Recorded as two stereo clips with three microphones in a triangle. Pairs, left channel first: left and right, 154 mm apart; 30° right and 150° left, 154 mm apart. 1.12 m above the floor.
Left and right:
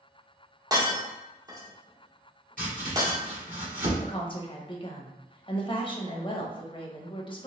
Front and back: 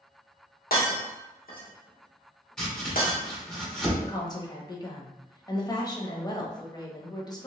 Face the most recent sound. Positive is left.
turn(degrees=30)